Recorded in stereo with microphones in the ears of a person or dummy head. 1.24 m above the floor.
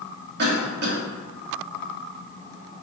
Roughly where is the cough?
Right.